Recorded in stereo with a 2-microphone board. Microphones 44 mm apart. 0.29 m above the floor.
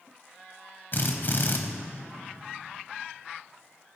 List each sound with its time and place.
0.9 s a drill: 50° left (ahead or behind), 1.0 m